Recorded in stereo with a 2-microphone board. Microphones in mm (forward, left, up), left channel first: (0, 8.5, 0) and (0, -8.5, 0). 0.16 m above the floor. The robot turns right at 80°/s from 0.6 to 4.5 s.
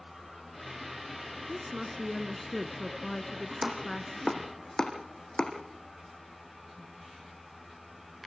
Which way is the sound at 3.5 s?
30° right (ahead or behind).